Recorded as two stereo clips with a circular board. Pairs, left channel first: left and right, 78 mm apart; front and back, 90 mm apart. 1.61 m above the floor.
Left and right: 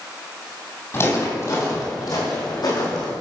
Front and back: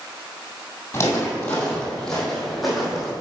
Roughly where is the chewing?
No chewing in this recording.